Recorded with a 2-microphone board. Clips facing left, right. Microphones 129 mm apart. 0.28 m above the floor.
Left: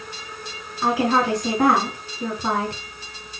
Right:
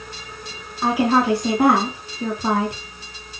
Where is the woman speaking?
10° right (ahead or behind), 2.5 m.